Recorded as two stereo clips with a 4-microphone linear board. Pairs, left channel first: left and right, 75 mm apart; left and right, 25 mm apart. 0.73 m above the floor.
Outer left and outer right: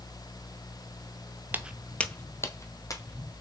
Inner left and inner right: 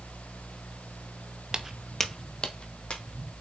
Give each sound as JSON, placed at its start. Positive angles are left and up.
{"t": 1.5, "sound": "footsteps", "side_deg": -25, "distance_m": 0.8}